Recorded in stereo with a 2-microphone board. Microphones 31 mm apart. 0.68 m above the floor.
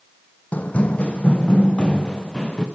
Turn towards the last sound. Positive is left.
turn(degrees=20)  # may be behind; listen again after turning